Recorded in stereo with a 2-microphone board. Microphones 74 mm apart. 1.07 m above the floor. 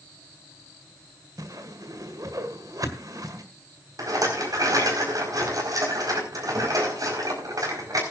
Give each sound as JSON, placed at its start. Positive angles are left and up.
{"t": 1.4, "sound": "a whoosh", "side_deg": -55, "distance_m": 1.7}
{"t": 4.0, "sound": "a rattle", "side_deg": -55, "distance_m": 4.5}